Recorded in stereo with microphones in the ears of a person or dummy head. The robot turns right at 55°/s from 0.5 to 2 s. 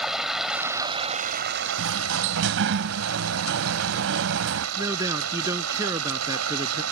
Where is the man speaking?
15° right (ahead or behind).